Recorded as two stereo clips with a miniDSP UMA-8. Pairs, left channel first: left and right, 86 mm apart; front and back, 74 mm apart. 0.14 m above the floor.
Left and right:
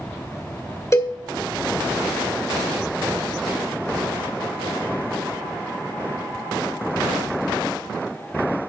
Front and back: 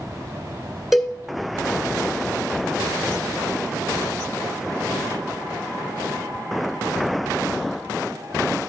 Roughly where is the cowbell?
Left.